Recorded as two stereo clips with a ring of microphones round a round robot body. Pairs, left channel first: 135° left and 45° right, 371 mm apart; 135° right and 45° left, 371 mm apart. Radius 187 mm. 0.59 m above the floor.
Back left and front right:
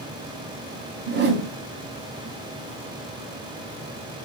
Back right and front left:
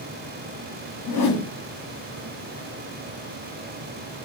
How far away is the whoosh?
About 0.8 m.